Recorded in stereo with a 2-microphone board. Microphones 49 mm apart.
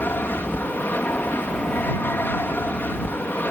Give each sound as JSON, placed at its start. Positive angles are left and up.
{"t": 0.0, "sound": "an aircraft", "side_deg": 45}